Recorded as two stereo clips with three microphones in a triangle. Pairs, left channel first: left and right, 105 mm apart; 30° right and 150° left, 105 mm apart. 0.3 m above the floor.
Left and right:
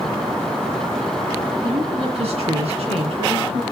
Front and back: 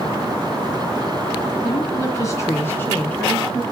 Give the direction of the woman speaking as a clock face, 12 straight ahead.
3 o'clock.